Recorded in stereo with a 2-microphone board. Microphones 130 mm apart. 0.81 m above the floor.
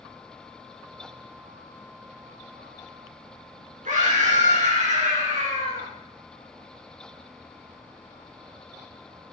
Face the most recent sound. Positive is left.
turn(degrees=-70)  # may be behind; listen again after turning